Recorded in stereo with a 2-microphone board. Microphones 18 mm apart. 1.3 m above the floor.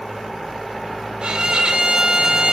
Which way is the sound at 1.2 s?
65° right (ahead or behind).